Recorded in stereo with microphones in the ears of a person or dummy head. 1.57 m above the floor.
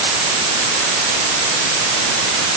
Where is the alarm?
I don't hear an alarm.